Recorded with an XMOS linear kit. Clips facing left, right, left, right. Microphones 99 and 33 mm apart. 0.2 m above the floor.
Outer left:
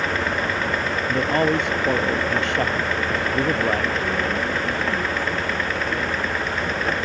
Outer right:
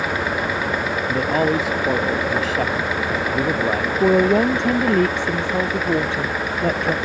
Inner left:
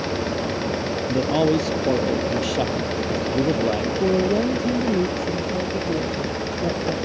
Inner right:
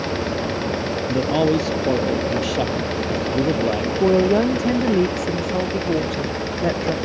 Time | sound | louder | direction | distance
1.1 | a man speaking | outer right 1 dB, inner right 1 dB | 5° right (ahead or behind) | ?
4.0 | a woman speaking | outer right 9 dB, inner right 5 dB | 85° right | ?